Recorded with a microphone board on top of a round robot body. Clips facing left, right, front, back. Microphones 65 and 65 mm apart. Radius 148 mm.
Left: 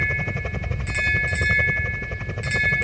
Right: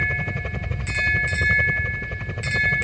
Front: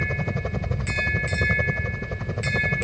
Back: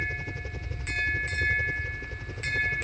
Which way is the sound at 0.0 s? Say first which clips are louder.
Even, front 6 dB; 5° left.